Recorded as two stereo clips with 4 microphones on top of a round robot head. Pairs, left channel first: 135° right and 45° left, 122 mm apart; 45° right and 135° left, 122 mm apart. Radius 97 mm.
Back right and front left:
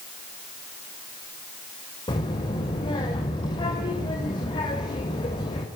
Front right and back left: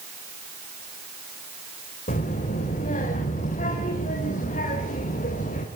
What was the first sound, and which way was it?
A child speaking, 80° right.